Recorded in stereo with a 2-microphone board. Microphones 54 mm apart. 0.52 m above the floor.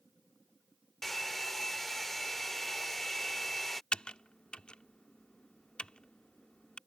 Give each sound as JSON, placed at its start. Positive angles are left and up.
{"t": 1.0, "sound": "a hair dryer", "side_deg": 5}
{"t": 3.9, "sound": "typing on a keyboard", "side_deg": 15}